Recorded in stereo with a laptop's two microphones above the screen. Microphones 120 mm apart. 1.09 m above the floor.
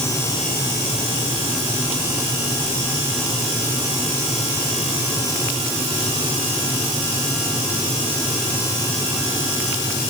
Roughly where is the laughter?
No laughter in this recording.